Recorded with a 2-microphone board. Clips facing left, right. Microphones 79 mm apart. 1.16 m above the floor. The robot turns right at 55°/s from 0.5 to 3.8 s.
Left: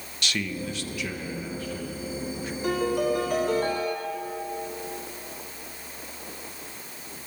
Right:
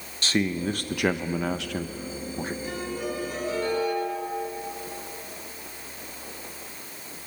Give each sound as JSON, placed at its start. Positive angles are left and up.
{"t": 0.2, "sound": "a man speaking", "azimuth_deg": -145, "distance_m": 0.9}
{"t": 2.6, "sound": "a piano", "azimuth_deg": 70, "distance_m": 4.0}